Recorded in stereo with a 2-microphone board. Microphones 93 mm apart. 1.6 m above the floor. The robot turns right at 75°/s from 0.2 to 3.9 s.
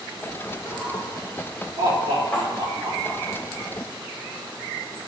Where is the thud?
15° left (ahead or behind), 3 m; by 2.5 s 25° left (ahead or behind), 3 m.